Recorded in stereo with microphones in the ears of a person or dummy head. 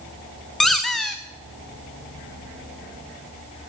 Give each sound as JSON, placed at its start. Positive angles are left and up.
{"t": 0.6, "sound": "a squeak", "side_deg": 5, "distance_m": 0.6}